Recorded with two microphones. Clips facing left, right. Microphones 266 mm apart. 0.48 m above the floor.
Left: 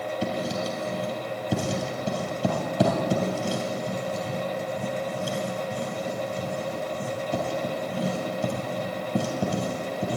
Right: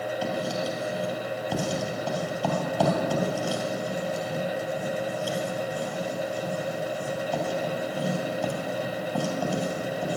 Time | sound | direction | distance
0.2 | writing | 25° left (ahead or behind) | 2.5 m